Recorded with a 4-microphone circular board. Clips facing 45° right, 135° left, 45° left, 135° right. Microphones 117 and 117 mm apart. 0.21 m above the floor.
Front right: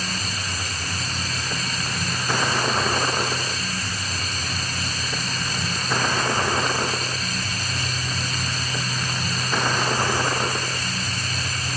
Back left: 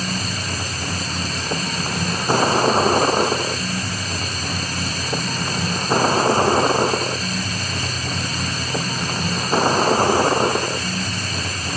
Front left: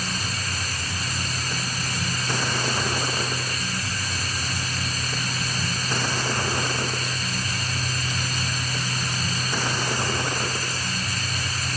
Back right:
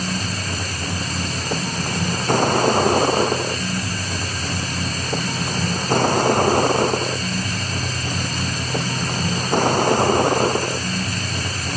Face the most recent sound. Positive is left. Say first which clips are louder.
# back left 4 dB, back right 5 dB
turn(degrees=-170)